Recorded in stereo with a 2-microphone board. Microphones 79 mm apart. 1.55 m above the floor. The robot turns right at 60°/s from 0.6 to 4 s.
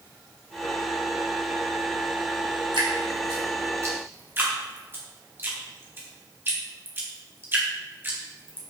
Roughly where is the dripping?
Right.